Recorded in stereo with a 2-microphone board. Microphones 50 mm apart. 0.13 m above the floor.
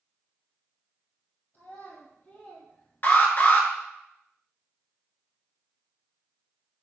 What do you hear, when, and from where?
1.5 s a child speaking: 55° left (ahead or behind), 1.6 m; by 3.6 s 5° left (ahead or behind), 1.4 m
3.0 s an alarm: 40° left (ahead or behind), 1.1 m